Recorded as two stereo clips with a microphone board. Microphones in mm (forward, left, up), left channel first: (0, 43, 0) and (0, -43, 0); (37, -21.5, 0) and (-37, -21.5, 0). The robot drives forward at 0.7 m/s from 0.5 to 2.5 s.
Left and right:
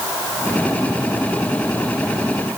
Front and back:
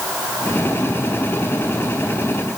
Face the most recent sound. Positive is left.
No sound to turn to.